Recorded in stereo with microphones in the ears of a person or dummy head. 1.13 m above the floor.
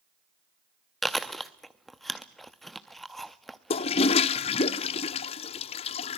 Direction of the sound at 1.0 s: Centre (ahead or behind).